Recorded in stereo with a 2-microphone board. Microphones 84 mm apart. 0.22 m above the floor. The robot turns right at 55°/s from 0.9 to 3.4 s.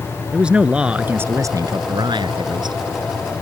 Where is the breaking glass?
I don't hear breaking glass.